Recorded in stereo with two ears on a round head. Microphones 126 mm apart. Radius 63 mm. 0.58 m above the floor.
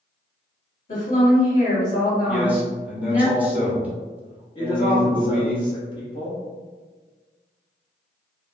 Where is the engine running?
I don't hear an engine running.